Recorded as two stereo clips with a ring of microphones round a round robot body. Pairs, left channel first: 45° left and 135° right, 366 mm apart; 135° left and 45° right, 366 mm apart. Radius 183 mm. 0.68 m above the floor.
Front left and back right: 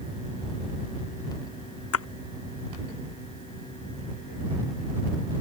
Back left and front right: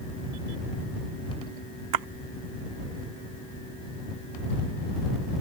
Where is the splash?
10° right.